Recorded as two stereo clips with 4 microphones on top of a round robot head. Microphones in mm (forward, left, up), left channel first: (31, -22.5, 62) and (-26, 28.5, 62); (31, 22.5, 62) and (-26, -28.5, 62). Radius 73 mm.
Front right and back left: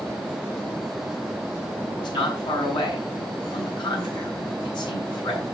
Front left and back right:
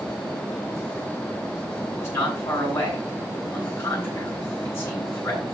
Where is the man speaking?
15° right, 6.5 m.